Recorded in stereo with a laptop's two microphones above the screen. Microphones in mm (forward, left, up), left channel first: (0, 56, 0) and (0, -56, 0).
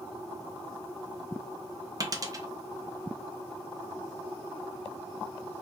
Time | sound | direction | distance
2.0 | a dropped coin | 30° right (ahead or behind) | 0.5 m